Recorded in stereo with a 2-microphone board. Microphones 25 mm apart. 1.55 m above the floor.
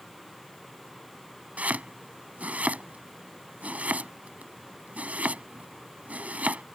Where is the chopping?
75° right (ahead or behind).